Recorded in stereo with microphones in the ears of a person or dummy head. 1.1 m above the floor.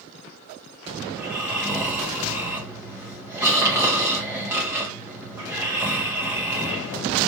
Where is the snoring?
10° right (ahead or behind), 1.8 m.